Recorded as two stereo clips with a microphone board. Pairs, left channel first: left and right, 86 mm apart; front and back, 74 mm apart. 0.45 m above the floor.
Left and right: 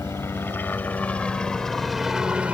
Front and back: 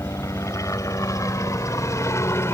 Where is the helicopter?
35° left; by 2.5 s 25° right.